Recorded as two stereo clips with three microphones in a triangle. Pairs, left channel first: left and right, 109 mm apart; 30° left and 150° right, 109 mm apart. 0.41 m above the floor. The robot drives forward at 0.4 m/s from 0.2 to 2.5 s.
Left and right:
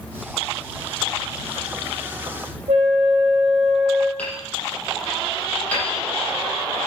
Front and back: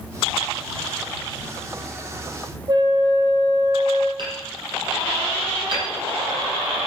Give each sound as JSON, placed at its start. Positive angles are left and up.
{"t": 2.7, "sound": "a flute", "azimuth_deg": -100, "distance_m": 2.5}
{"t": 4.2, "sound": "hammering", "azimuth_deg": 165, "distance_m": 7.0}